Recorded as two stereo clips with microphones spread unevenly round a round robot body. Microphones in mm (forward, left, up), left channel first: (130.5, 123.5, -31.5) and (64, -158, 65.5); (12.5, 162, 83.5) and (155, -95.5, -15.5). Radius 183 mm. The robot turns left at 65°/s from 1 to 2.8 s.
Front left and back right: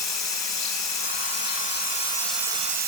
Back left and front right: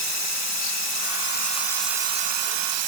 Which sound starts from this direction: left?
Running water, at 0.0 s.